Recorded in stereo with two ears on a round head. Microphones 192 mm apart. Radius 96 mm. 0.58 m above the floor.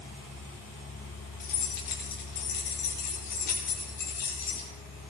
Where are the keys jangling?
55° left (ahead or behind), 9 m; by 4.7 s 40° left (ahead or behind), 11 m.